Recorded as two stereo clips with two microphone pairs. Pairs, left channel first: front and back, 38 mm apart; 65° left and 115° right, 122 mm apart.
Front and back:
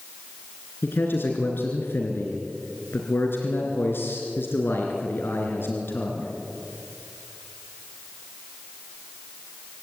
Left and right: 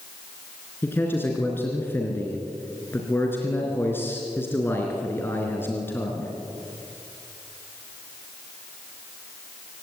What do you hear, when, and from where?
0.8 s a man speaking: 10° right, 3 m